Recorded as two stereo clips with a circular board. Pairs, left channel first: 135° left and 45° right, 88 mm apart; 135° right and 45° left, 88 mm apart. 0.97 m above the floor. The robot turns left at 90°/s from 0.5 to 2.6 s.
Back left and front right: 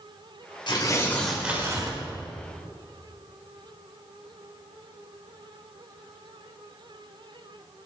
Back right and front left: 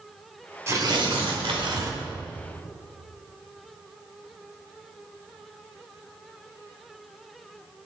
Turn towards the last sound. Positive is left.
turn(degrees=-70)